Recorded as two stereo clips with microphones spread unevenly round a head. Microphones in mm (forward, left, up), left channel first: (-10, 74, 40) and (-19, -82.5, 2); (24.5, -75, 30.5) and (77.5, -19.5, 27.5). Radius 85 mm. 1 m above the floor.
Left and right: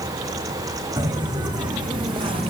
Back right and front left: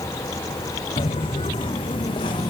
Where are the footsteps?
160° right, 3 m; by 2.5 s 155° right, 1.9 m.